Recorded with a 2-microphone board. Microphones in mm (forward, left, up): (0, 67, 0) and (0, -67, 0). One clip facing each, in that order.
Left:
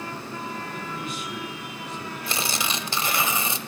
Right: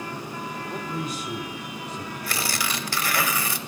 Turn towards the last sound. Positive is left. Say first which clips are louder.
# left 1 dB
turn(degrees=25)  # may be behind; listen again after turning